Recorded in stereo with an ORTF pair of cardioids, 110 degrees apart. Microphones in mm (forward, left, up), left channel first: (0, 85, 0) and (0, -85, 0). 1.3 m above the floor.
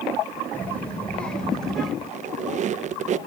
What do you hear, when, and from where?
0.5 s a child speaking: 10° left, 3.5 m; by 1.9 s straight ahead, 4.5 m
2.0 s a squeak: 45° right, 0.7 m